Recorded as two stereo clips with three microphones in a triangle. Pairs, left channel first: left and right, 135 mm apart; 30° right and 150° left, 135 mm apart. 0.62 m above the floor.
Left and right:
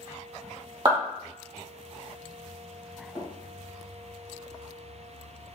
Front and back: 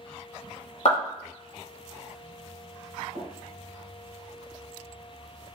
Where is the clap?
40° right, 1.3 m.